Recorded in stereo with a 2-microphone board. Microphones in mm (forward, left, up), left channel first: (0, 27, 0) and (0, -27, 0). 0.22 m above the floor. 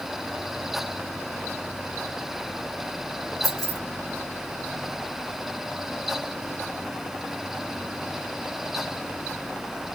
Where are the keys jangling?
70° right (ahead or behind), 2 m.